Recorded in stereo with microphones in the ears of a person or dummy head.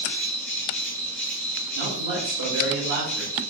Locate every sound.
0.0 s an insect: 5° left (ahead or behind), 0.7 m
1.8 s a man speaking: 70° right (ahead or behind), 0.8 m